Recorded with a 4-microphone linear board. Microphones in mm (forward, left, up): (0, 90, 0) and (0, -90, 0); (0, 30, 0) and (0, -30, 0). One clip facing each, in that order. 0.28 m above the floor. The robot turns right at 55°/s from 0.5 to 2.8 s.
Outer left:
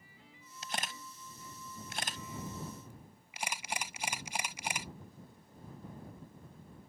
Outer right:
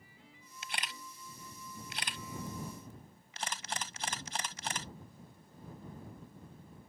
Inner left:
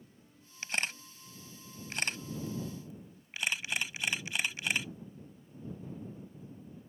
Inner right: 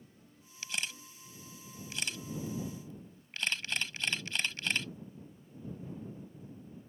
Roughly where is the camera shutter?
Left.